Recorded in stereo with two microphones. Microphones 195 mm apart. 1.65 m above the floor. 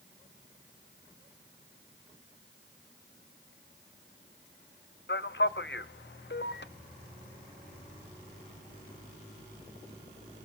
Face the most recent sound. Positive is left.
turn(degrees=65)  # may be behind; listen again after turning